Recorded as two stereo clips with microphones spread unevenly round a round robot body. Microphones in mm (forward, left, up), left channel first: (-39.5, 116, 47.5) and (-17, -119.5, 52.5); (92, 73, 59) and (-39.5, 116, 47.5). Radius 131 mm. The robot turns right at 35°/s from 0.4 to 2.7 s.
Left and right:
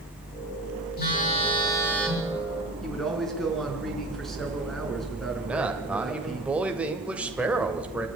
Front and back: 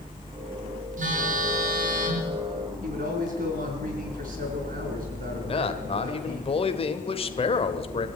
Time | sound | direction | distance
1.0 | a phone buzzing | 145° left | 6 m
2.8 | a man speaking | 175° right | 5 m
5.4 | a man speaking | straight ahead | 1.9 m